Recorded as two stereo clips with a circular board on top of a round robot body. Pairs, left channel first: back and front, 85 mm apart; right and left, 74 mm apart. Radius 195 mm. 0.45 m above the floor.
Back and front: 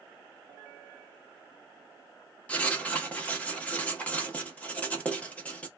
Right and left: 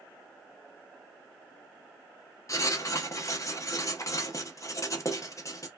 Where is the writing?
110° right, 1.2 m.